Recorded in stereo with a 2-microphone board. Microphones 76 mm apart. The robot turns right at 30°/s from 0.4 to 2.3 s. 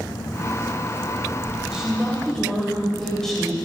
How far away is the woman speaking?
About 3 m.